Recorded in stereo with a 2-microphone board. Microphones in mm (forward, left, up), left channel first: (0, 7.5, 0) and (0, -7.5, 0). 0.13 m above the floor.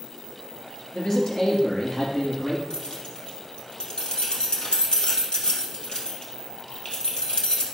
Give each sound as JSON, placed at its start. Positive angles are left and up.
{"t": 0.9, "sound": "a man speaking", "side_deg": 30, "distance_m": 2.5}
{"t": 2.7, "sound": "keys jangling", "side_deg": 70, "distance_m": 2.0}